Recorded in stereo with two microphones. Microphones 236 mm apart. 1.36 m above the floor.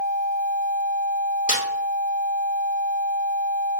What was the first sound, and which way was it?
A snare drum, 35° left (ahead or behind).